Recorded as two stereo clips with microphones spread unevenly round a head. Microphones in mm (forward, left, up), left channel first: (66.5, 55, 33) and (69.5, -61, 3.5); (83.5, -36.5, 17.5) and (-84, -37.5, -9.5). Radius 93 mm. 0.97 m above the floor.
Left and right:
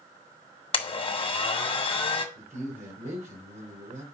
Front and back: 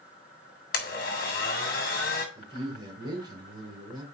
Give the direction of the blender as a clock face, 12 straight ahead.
10 o'clock.